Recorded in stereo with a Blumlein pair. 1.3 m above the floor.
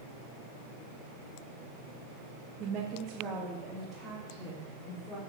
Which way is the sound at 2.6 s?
30° right.